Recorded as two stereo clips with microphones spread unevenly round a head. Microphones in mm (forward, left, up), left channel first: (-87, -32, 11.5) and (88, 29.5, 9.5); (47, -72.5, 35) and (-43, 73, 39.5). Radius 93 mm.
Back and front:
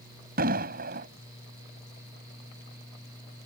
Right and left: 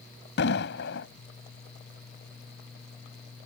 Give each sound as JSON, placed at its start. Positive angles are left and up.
{"t": 0.4, "sound": "an explosion", "azimuth_deg": -25}